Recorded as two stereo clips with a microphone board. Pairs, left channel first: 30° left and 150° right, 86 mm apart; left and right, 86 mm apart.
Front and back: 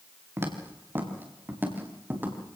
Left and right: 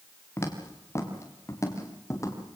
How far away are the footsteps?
About 5 m.